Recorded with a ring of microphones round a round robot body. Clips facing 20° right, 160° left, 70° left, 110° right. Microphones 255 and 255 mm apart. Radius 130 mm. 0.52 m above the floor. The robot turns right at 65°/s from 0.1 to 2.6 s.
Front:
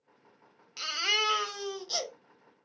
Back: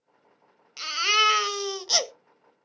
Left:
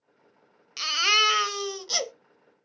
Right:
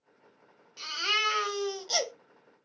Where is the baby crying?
70° left, 0.7 m; by 2.1 s 155° left, 0.7 m.